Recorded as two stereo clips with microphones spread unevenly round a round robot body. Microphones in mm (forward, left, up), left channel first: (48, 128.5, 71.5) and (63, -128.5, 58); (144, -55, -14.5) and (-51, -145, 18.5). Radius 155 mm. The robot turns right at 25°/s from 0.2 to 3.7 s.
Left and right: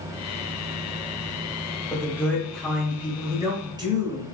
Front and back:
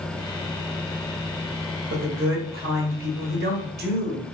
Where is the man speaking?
170° left, 1.0 m; by 4.2 s 145° right, 1.0 m.